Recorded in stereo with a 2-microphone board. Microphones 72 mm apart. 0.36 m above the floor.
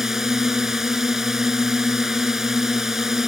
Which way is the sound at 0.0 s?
5° right (ahead or behind).